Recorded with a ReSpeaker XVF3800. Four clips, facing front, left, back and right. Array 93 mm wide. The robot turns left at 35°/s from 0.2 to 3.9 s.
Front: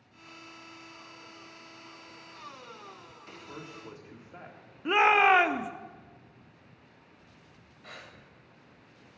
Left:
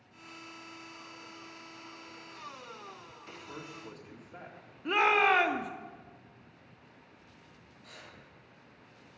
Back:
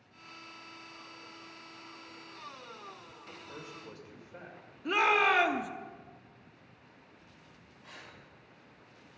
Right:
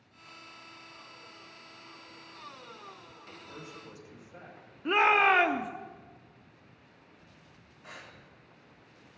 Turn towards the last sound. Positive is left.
turn(degrees=-25)